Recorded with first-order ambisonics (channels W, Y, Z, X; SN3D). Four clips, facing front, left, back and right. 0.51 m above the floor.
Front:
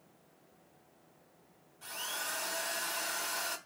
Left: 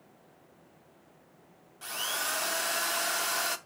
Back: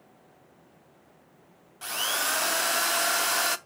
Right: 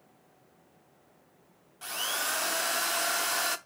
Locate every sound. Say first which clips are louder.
1.8 s a drill: right 1 dB, back 11 dB; 175° right, 0.5 m